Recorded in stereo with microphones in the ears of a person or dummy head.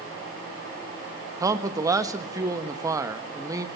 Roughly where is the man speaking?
Centre.